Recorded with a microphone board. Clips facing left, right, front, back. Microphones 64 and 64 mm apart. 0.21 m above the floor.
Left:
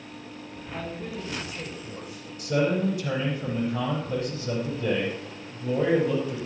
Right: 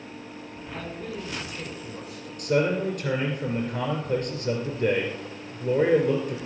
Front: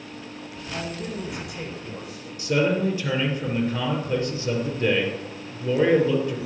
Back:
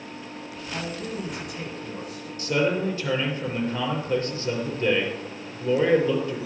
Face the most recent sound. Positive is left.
turn(degrees=-70)